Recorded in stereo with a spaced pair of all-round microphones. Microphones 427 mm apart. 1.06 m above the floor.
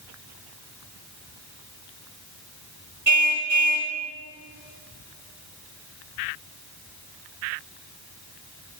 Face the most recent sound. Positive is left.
turn(degrees=-40)  # may be behind; listen again after turning